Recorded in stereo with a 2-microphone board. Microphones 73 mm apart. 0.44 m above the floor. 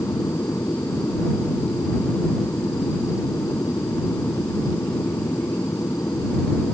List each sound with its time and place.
0.0 s an aircraft: 35° left (ahead or behind)